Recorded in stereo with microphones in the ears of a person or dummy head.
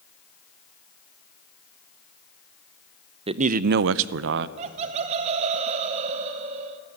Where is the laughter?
40° right (ahead or behind), 0.8 m.